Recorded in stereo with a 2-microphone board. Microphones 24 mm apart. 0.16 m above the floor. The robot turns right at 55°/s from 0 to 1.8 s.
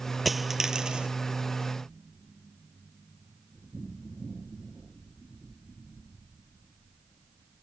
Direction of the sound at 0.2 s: Straight behind.